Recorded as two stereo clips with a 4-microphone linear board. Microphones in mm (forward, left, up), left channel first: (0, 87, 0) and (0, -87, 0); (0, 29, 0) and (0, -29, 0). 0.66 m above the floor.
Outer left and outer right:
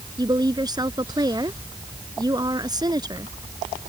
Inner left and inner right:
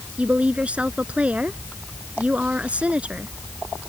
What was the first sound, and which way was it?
A woman speaking, 25° right (ahead or behind).